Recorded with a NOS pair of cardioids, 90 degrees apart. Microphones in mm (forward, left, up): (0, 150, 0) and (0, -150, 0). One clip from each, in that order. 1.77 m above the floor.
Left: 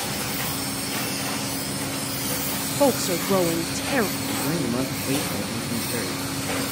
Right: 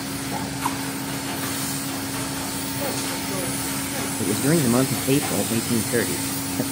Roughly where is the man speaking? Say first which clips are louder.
Right 4 dB; ahead right.